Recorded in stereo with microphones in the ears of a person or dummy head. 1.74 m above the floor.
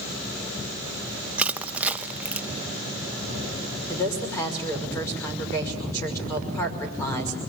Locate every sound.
1.4 s crushing: 10° right (ahead or behind), 0.6 m
3.9 s a woman speaking: 15° left (ahead or behind), 5.5 m